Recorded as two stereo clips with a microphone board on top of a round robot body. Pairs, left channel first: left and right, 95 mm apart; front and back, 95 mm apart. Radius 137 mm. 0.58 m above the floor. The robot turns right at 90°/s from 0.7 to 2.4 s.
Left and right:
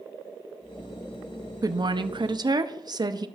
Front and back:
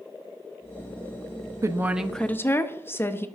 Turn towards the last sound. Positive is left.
turn(degrees=-60)